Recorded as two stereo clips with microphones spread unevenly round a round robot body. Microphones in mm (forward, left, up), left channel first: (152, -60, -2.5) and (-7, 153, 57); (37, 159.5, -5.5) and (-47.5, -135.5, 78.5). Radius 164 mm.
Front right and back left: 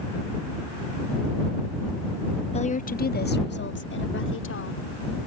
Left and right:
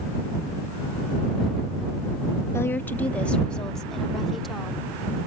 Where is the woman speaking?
5° left; by 4.9 s 15° right.